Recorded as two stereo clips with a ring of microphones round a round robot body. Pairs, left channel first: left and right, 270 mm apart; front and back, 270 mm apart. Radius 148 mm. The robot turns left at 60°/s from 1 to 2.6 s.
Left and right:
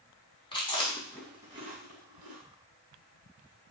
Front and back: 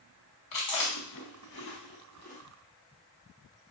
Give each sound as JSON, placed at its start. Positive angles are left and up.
{"t": 0.5, "sound": "chewing", "azimuth_deg": 15, "distance_m": 1.3}